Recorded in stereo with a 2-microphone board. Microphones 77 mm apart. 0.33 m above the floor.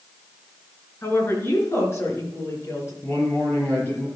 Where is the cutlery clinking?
No cutlery clinking in this recording.